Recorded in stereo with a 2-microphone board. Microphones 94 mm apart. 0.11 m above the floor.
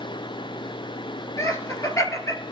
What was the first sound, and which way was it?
Laughter, 35° left (ahead or behind).